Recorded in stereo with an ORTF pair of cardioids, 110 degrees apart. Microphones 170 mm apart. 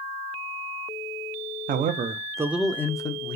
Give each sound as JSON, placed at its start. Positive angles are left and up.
{"t": 1.7, "sound": "a man speaking", "azimuth_deg": -55, "distance_m": 0.6}